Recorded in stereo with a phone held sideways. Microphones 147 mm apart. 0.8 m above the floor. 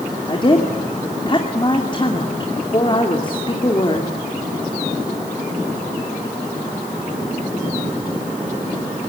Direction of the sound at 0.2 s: 35° left (ahead or behind).